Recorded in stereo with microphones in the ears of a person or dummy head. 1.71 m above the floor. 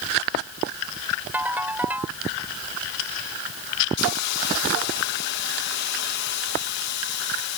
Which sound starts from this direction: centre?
A ringtone, at 1.3 s.